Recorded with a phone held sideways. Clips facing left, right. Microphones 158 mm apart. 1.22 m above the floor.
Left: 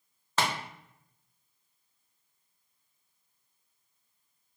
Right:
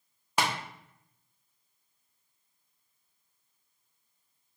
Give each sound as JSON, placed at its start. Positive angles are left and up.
{"t": 0.4, "sound": "tapping", "side_deg": -15, "distance_m": 0.5}